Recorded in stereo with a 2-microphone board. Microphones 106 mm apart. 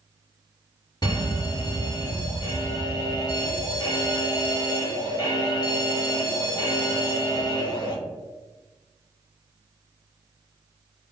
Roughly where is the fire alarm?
Left.